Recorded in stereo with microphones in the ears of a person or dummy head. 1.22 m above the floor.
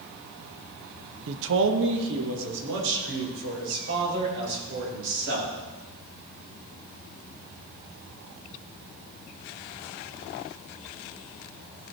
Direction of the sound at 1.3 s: 70° right (ahead or behind).